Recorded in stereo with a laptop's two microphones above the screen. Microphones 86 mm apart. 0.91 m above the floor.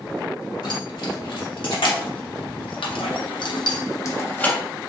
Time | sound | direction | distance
0.6 | keys jangling | 65° left (ahead or behind) | 1.9 m